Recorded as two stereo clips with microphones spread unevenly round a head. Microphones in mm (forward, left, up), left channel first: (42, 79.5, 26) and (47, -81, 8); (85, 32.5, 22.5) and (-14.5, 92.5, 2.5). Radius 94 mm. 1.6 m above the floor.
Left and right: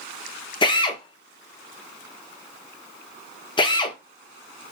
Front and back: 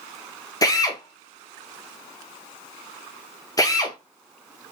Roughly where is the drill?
Ahead left.